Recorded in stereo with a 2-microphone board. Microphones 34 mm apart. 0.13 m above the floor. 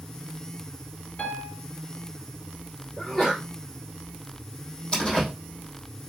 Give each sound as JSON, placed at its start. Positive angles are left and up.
{"t": 1.2, "sound": "a piano", "side_deg": 45, "distance_m": 2.0}
{"t": 3.0, "sound": "a sneeze", "side_deg": 0, "distance_m": 2.5}
{"t": 4.9, "sound": "a door slam", "side_deg": 20, "distance_m": 3.0}